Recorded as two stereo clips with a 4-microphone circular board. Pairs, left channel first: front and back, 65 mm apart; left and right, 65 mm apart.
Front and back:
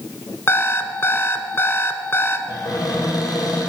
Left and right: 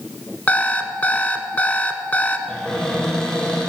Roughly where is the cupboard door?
Ahead.